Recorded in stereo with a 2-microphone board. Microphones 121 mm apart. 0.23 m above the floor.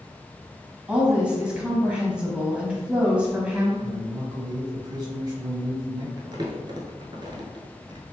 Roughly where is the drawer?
I don't hear a drawer.